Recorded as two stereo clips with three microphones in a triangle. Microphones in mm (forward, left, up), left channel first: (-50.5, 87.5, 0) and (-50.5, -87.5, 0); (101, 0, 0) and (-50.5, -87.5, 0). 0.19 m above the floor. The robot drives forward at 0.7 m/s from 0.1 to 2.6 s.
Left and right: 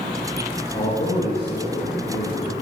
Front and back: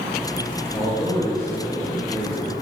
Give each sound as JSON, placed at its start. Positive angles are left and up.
{"t": 0.7, "sound": "a man speaking", "azimuth_deg": 90, "distance_m": 4.5}